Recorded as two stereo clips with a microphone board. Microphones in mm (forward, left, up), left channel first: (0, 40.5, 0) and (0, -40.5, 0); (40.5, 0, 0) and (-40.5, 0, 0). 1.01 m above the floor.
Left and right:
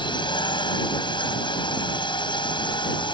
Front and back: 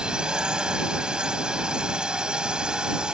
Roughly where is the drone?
Left.